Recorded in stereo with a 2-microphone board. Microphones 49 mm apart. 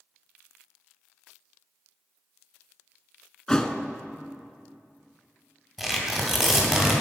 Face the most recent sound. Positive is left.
turn(degrees=0)  # may be behind; listen again after turning